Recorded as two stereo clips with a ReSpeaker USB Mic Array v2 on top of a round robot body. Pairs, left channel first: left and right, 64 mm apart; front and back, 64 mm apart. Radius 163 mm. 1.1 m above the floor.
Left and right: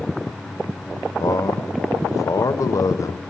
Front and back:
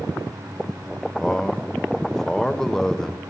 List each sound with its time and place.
1.2 s a man speaking: 80° left, 1.0 m